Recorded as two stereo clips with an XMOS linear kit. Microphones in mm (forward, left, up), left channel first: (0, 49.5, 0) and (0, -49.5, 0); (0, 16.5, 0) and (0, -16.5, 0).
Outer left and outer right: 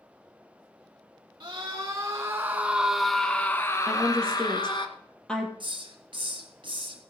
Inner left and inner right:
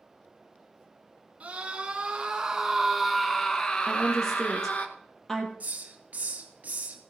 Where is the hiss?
55° right (ahead or behind), 2 m.